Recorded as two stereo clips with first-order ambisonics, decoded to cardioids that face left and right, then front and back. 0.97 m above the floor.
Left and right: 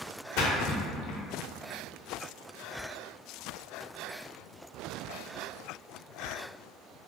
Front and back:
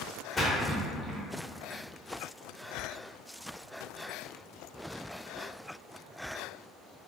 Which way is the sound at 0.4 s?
75° left.